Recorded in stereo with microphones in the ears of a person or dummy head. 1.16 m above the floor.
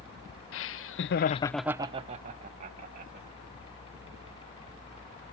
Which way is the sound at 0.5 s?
60° left (ahead or behind).